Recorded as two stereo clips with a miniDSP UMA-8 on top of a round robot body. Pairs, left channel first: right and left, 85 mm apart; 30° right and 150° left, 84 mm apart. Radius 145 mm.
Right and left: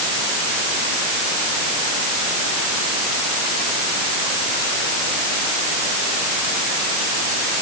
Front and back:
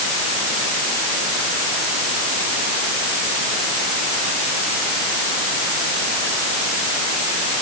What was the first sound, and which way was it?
Only background noise.